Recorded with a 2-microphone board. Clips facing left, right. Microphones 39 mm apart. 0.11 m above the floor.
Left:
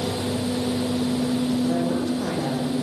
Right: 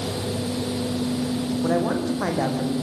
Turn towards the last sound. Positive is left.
turn(degrees=-75)  # may be behind; listen again after turning